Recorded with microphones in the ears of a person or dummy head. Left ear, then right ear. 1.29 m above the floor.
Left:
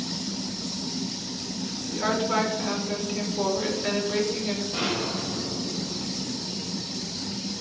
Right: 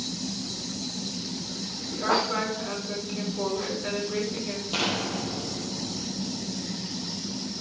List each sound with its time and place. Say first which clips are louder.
1.9 s a woman speaking: even; 20° left (ahead or behind), 5.5 m
4.7 s an explosion: right 3 dB; 70° right (ahead or behind), 5 m